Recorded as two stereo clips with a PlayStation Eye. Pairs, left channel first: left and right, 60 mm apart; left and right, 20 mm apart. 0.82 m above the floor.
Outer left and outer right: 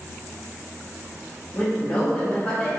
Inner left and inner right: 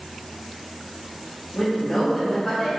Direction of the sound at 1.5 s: 25° left (ahead or behind).